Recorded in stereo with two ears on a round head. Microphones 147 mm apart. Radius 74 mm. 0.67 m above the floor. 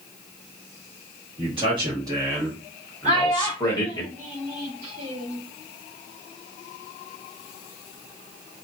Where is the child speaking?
45° right (ahead or behind), 1.7 m.